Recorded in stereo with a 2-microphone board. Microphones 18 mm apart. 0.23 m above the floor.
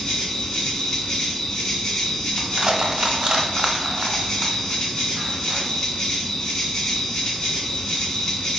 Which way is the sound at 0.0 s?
45° left (ahead or behind).